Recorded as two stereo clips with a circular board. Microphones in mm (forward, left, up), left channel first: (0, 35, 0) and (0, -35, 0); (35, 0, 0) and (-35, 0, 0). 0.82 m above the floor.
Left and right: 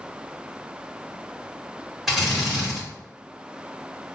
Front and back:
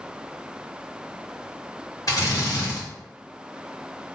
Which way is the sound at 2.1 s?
Straight ahead.